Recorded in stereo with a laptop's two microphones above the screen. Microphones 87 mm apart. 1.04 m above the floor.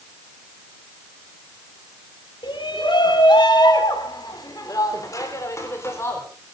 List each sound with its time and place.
2.4 s a shout: 75° left (ahead or behind), 3.5 m; by 6.2 s 30° left (ahead or behind), 4 m